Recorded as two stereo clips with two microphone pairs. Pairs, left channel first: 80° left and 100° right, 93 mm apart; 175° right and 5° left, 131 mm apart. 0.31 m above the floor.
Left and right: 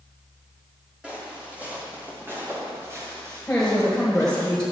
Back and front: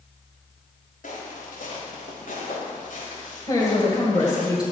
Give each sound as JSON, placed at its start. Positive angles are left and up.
{"t": 1.0, "sound": "footsteps", "azimuth_deg": -175, "distance_m": 4.5}
{"t": 3.5, "sound": "a woman speaking", "azimuth_deg": 155, "distance_m": 1.7}